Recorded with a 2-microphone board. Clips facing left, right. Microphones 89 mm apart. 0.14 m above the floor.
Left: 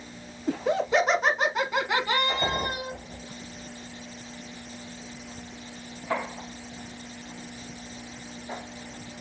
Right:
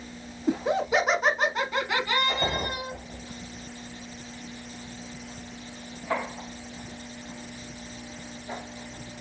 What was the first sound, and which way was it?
Laughter, 20° right (ahead or behind).